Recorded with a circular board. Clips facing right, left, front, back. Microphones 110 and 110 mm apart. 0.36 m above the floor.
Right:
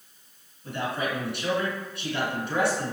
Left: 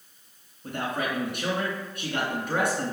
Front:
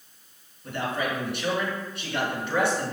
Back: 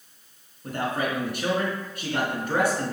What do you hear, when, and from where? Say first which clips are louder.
0.6 s a man speaking: even, back 1 dB; 135° left, 3.5 m